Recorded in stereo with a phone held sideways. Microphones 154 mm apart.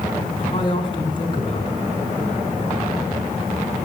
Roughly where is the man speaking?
Left.